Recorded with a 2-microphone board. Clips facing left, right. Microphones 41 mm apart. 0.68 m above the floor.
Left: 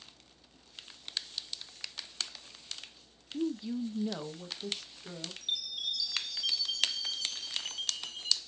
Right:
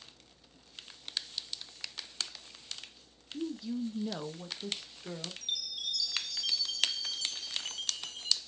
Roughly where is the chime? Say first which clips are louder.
Left 3 dB; centre.